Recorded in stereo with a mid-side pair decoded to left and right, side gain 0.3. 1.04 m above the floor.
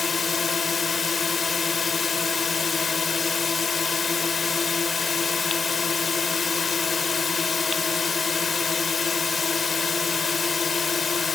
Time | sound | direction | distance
0.0 | a drone | 55° left | ?